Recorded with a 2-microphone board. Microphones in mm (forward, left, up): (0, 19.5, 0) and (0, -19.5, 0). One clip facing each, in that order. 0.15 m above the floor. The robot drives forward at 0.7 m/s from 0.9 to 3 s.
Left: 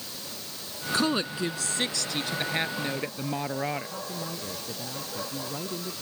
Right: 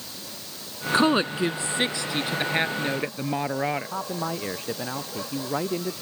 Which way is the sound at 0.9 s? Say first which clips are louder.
Right 6 dB; 35° right (ahead or behind).